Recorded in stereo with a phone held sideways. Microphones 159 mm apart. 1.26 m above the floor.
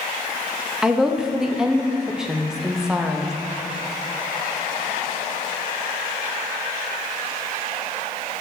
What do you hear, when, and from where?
0.8 s a woman speaking: 5° right (ahead or behind), 0.6 m